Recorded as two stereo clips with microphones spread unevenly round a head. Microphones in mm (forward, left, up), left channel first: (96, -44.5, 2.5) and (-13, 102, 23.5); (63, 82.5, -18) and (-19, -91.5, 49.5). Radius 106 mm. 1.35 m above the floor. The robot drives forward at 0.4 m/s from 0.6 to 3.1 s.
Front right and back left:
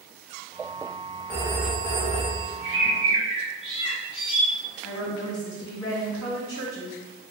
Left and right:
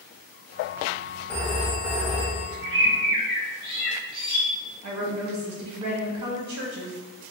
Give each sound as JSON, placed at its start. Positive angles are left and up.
{"t": 1.3, "sound": "a phone ringing", "azimuth_deg": -175, "distance_m": 0.7}
{"t": 2.6, "sound": "a bird", "azimuth_deg": -150, "distance_m": 1.7}
{"t": 4.8, "sound": "a woman speaking", "azimuth_deg": -125, "distance_m": 1.1}